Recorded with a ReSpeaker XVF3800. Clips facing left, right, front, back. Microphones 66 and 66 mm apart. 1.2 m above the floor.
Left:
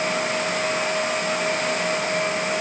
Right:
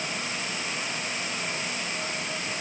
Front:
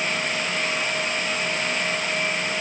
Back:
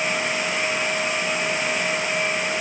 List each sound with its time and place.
Only background noise.